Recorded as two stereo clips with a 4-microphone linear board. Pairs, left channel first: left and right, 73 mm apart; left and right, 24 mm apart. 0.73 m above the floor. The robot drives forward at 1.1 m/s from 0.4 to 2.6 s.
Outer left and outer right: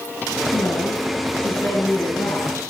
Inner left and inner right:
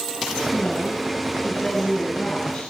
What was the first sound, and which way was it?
A woman speaking, 55° left (ahead or behind).